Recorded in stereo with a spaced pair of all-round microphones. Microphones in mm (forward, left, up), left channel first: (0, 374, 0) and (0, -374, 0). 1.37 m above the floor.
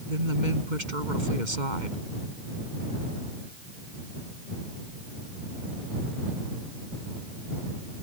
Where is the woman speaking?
75° right (ahead or behind).